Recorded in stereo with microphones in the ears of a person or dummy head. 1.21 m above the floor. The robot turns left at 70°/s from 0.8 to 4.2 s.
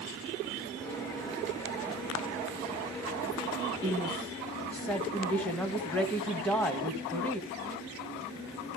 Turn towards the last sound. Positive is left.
turn(degrees=5)  # may be behind; listen again after turning